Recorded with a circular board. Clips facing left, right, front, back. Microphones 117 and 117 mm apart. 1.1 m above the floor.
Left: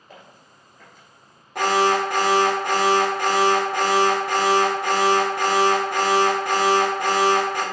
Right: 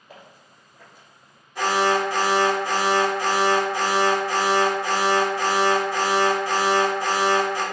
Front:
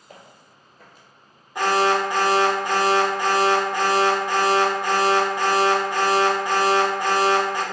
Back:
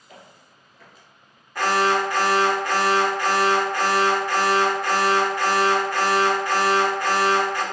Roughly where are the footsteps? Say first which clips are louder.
Even, front 1 dB; ahead.